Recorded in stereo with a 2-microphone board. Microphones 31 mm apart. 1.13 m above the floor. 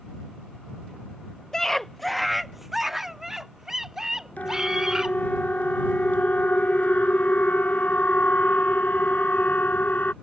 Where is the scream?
15° left (ahead or behind); by 5.2 s 25° right (ahead or behind).